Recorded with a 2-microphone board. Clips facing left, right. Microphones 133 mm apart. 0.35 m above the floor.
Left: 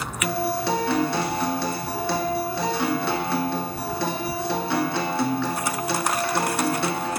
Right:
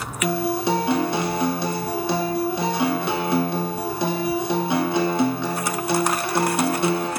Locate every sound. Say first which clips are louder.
0.2 s a guitar: right 3 dB; 20° right (ahead or behind), 0.6 m